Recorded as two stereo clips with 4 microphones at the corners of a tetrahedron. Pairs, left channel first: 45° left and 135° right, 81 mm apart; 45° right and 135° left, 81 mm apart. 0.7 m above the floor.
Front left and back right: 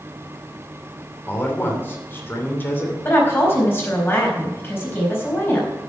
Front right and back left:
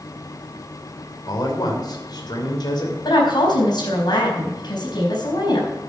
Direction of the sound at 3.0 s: 15° right.